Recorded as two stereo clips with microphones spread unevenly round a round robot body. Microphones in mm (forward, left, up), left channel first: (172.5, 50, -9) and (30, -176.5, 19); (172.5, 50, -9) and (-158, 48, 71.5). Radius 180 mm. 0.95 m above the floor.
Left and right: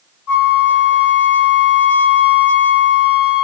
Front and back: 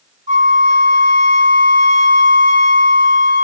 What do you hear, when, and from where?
0.3 s a flute: 110° left, 3 m